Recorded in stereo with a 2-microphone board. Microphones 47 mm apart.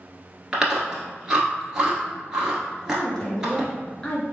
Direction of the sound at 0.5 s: 10° right (ahead or behind).